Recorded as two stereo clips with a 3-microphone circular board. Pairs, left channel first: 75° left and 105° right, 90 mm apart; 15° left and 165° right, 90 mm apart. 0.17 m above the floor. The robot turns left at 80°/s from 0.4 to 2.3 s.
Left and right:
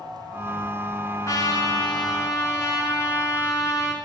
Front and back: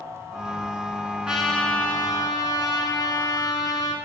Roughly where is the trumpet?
Behind left.